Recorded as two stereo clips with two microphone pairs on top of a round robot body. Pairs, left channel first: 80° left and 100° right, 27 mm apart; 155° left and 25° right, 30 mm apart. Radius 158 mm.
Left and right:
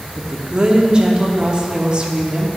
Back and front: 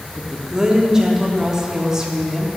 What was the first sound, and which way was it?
A woman speaking, 95° right.